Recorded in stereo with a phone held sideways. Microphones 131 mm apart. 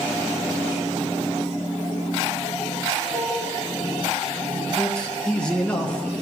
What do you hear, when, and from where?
3.1 s a piano: 75° right (ahead or behind), 5 m
4.8 s a man speaking: 10° left (ahead or behind), 1.2 m